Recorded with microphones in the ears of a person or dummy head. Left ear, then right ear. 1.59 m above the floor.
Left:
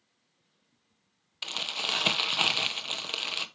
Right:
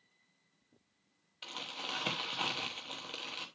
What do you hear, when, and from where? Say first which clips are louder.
1.4 s crumpling: left 10 dB; 30° left (ahead or behind), 1.0 m